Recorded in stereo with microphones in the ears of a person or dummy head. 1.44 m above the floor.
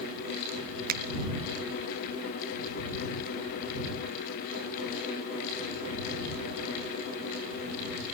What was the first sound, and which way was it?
A finger snap, 50° right (ahead or behind).